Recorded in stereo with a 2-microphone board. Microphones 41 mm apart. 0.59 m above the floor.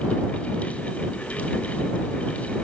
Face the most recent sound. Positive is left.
No sound to turn to.